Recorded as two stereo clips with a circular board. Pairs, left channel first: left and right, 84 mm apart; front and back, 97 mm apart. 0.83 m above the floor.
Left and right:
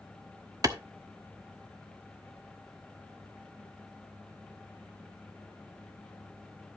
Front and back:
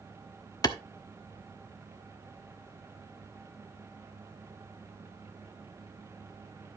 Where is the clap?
45° right, 1.2 m.